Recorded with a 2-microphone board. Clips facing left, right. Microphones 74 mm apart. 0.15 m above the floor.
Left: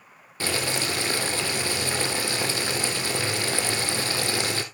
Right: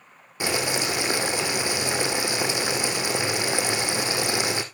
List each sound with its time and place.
0.4 s boiling: 15° right (ahead or behind), 1.6 m